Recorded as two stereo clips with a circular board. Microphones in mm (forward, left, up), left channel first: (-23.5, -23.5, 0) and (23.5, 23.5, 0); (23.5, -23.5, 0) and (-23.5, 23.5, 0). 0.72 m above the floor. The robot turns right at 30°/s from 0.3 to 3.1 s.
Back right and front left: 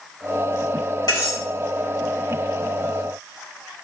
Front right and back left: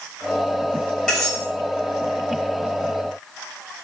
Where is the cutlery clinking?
125° right, 1.5 m; by 1.4 s 115° right, 1.5 m.